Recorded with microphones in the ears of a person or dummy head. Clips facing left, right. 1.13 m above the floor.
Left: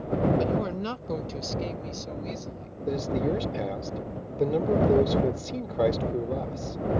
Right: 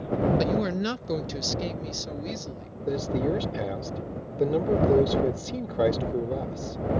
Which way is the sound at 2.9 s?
5° right (ahead or behind).